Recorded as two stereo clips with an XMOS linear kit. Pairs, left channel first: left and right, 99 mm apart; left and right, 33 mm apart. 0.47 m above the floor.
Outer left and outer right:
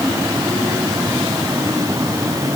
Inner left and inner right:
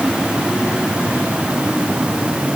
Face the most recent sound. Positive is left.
No sound to turn to.